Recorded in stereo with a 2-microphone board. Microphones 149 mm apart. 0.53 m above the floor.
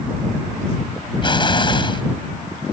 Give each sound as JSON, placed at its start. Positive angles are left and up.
{"t": 1.2, "sound": "an explosion", "side_deg": 35}